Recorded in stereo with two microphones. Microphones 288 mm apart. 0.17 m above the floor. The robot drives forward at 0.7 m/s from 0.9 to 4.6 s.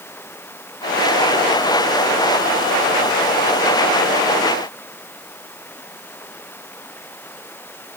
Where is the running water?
5° left (ahead or behind).